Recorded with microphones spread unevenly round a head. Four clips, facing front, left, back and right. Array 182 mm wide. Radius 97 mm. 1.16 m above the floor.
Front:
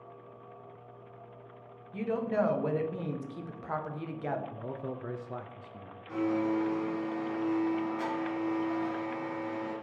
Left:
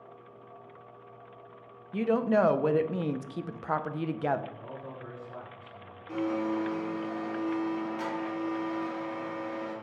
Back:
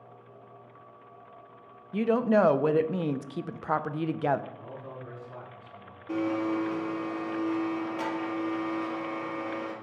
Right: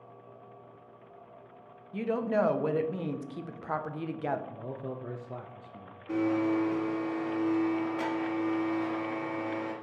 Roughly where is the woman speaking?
Behind left.